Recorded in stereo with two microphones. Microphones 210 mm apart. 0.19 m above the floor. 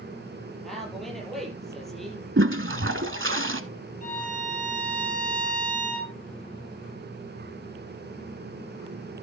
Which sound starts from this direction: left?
A violin, at 4.0 s.